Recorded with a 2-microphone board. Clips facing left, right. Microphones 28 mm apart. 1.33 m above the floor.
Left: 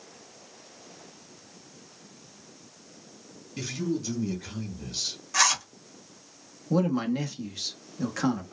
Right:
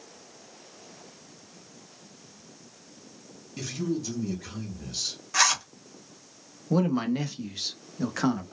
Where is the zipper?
10° right (ahead or behind), 1.2 m.